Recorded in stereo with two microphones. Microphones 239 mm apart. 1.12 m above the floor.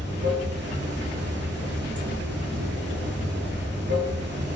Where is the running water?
50° right (ahead or behind), 0.7 m.